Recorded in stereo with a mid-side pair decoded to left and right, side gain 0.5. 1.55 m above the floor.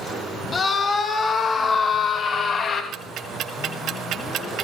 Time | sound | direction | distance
0.5 | a scream | 35° left | 3.5 m
2.9 | ticking | 65° right | 2 m